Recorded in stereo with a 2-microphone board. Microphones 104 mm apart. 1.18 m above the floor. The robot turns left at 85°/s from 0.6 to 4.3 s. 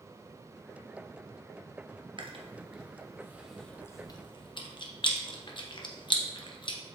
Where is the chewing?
45° right (ahead or behind), 1.0 m; by 6.8 s 45° left (ahead or behind), 1.0 m.